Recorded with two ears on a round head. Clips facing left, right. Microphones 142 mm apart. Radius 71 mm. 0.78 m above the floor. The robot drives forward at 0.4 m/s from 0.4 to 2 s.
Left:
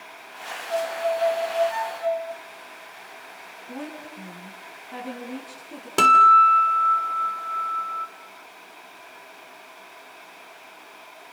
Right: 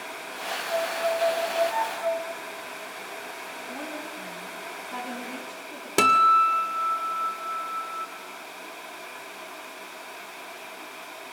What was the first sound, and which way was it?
A violin, 15° left (ahead or behind).